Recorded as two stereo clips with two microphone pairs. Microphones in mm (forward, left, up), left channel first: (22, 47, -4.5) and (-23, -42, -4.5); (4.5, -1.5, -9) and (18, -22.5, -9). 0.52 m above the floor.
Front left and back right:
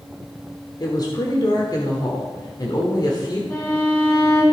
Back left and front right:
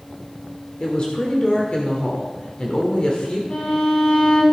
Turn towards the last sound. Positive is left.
turn(degrees=125)